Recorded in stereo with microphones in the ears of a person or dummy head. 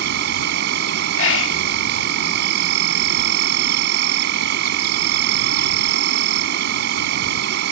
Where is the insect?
65° right (ahead or behind).